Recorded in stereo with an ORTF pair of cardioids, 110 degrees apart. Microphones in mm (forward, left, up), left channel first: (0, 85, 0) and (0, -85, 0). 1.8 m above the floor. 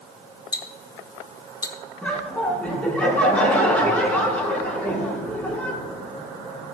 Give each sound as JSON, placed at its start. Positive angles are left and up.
{"t": 0.5, "sound": "ticking", "azimuth_deg": 20, "distance_m": 1.4}
{"t": 2.0, "sound": "laughter", "azimuth_deg": 10, "distance_m": 5.5}